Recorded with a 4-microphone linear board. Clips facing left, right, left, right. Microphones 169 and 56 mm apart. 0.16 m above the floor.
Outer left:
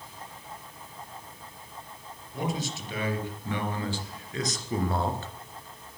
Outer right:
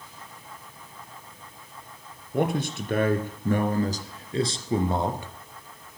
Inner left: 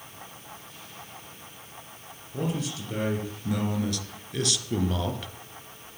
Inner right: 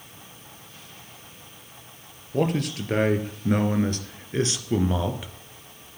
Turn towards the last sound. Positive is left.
turn(degrees=-10)  # may be behind; listen again after turning